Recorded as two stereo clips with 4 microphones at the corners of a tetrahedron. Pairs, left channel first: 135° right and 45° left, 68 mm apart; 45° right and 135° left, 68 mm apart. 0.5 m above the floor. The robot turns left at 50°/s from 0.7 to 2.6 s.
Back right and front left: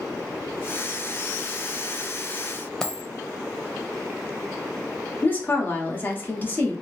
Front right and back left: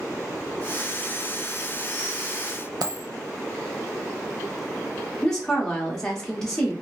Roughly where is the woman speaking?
Behind right.